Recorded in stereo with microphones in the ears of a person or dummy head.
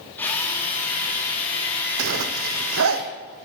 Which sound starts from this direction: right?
A zipper, at 2.0 s.